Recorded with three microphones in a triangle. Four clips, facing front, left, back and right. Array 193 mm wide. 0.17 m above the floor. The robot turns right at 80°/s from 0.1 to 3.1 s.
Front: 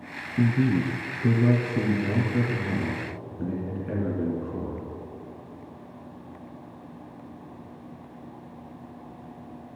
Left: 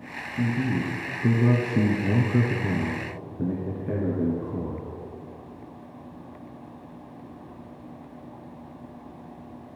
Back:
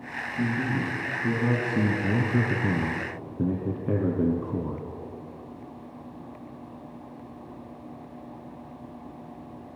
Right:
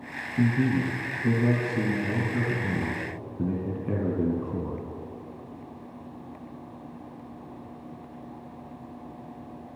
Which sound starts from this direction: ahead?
A man speaking, at 0.4 s.